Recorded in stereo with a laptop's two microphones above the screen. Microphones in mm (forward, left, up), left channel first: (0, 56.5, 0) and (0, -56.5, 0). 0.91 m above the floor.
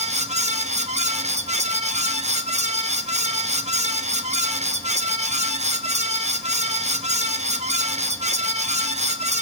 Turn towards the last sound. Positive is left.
turn(degrees=-80)